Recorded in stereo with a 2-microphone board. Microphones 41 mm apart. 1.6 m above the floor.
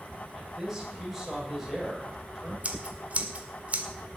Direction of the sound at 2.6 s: 40° right (ahead or behind).